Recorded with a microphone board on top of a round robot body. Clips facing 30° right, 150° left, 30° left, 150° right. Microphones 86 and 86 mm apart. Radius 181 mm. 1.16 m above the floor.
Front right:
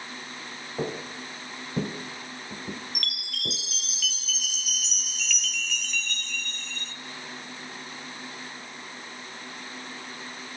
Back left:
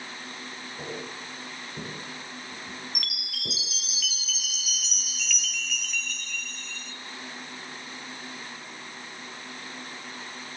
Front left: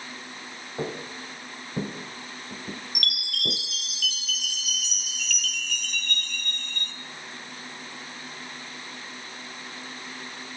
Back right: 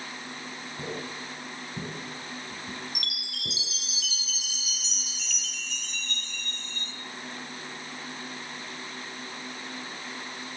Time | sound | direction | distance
0.8 | footsteps | 20° right | 4.5 m
3.0 | a chime | 65° left | 0.7 m